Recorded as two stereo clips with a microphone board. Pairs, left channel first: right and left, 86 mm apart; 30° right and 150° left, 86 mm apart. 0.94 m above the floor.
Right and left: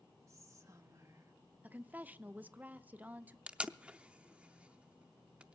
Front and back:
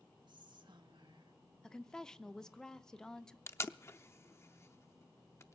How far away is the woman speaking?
About 0.6 m.